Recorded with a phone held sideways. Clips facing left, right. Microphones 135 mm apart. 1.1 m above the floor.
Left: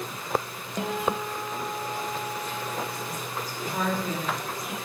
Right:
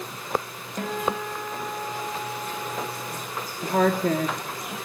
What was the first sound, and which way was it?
A guitar, 20° left (ahead or behind).